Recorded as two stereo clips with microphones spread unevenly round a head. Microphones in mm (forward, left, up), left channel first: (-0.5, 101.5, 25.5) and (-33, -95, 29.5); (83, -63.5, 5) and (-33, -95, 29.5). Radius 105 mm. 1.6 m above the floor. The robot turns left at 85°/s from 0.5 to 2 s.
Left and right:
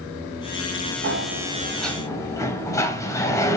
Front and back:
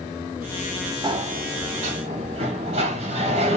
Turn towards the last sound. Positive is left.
turn(degrees=155)